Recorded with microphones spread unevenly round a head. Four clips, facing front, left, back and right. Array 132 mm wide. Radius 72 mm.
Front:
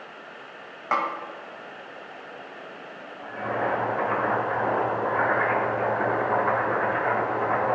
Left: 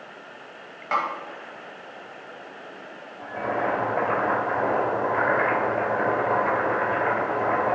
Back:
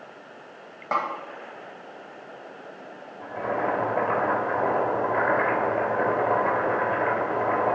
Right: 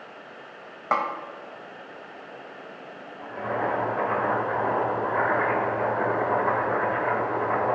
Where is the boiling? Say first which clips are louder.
Left 2 dB, back 1 dB; 140° left, 3 m.